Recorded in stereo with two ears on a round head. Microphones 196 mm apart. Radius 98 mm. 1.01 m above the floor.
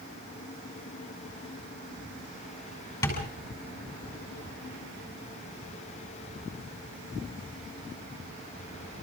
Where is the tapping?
15° left (ahead or behind), 7 m.